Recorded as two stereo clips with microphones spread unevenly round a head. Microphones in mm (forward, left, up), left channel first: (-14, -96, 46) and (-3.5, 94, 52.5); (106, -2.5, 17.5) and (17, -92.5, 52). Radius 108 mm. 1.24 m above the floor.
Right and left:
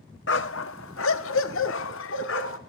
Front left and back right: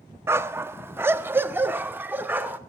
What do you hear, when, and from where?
0.3 s a dog barking: 90° right, 0.8 m; by 2.6 s 65° right, 1.9 m